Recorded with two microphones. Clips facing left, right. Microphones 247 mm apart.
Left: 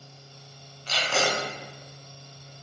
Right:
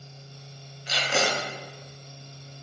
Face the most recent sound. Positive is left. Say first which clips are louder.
# even
turn(degrees=-15)  # may be behind; listen again after turning